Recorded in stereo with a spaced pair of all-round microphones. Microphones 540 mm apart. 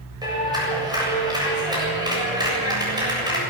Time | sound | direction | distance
0.2 | a clap | 5° right (ahead or behind) | 7.5 m